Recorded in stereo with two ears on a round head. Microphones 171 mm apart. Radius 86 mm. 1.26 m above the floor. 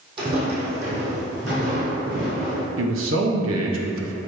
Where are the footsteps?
25° right (ahead or behind), 2 m; by 2.7 s 45° right (ahead or behind), 4.5 m.